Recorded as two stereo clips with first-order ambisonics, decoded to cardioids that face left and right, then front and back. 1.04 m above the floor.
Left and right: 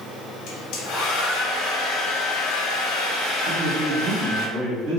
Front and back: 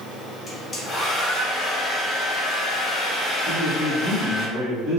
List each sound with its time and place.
0.5 s a hair dryer: 75° left, 0.7 m
3.5 s a man speaking: 115° right, 1.2 m